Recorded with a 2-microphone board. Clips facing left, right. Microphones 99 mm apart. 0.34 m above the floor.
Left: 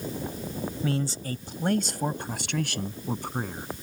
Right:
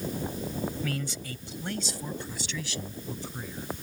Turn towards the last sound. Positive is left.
turn(degrees=55)  # may be behind; listen again after turning